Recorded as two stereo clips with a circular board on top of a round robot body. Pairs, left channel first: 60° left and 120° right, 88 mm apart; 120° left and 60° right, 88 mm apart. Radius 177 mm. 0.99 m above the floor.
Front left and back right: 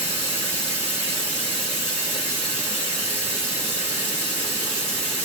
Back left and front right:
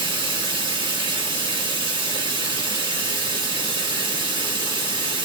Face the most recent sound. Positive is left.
turn(degrees=-95)